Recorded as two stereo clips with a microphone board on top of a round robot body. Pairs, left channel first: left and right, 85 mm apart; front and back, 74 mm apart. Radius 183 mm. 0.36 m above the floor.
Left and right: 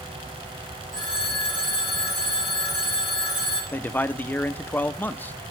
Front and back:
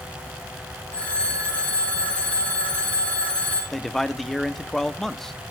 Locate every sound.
0.9 s a phone ringing: 70° right, 5 m
3.7 s a man speaking: 80° left, 1.1 m